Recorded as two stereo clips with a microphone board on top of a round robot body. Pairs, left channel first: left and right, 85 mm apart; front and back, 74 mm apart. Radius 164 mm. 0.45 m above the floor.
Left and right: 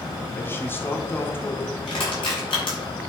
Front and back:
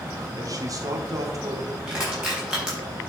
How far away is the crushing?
About 4.5 m.